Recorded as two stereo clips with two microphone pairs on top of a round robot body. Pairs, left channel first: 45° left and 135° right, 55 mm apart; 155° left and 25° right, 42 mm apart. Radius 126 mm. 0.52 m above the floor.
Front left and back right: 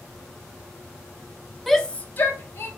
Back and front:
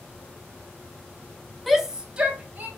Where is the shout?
65° left, 0.7 m; by 2.7 s 30° left, 1.4 m.